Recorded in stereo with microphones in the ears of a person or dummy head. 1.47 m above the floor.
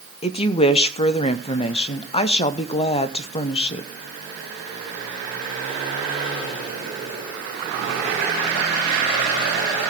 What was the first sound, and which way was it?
A woman speaking, 30° left (ahead or behind).